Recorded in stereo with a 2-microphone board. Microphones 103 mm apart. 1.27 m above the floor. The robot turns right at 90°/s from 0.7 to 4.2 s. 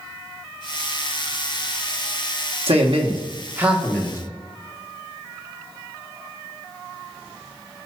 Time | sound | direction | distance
2.7 | a man speaking | 105° right | 1.3 m